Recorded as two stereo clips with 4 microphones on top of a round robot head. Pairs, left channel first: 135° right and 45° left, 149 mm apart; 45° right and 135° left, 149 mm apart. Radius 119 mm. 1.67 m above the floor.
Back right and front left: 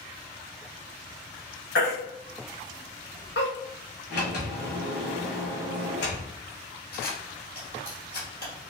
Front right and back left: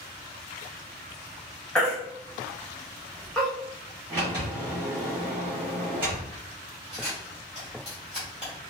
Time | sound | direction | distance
1.8 | a baby crying | 130° right | 0.5 m
4.1 | a sliding door | 150° right | 1.3 m
6.9 | a camera shutter | 135° right | 1.7 m